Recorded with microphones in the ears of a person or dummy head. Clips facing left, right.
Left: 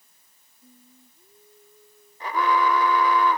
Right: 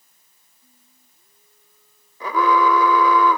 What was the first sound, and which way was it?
Singing, 35° left (ahead or behind).